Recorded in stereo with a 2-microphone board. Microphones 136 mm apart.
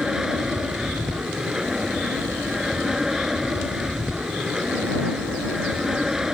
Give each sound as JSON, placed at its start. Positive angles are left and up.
{"t": 0.0, "sound": "an aircraft", "side_deg": -5}